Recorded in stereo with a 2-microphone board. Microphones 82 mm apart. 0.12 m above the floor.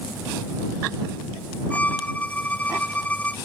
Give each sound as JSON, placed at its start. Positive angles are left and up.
{"t": 1.7, "sound": "a violin", "side_deg": 15}